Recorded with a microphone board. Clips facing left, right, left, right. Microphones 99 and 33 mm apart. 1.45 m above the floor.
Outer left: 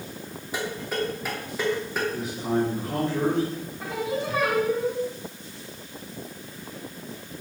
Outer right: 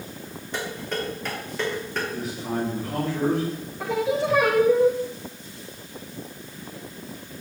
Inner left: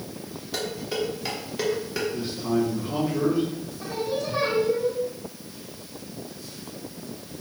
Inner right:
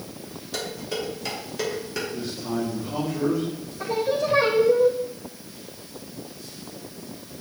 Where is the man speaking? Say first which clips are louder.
Outer left 3 dB, inner left 5 dB; 25° left (ahead or behind), 3 m.